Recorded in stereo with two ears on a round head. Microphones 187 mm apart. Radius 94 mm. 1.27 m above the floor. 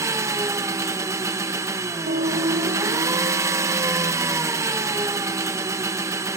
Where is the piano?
55° right (ahead or behind), 2 m.